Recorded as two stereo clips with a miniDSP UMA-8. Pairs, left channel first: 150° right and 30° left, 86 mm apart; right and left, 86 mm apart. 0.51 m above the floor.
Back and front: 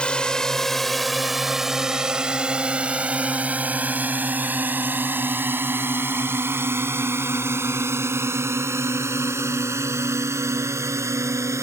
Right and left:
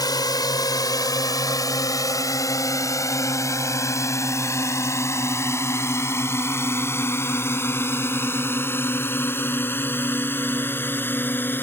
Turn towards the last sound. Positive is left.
turn(degrees=-25)